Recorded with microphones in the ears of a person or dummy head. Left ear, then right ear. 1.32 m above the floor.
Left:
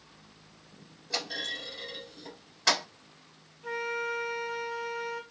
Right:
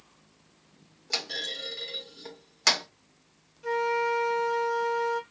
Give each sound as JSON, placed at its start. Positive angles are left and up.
{"t": 1.1, "sound": "a clunk", "side_deg": -75, "distance_m": 1.2}
{"t": 3.6, "sound": "a flute", "side_deg": -65, "distance_m": 1.4}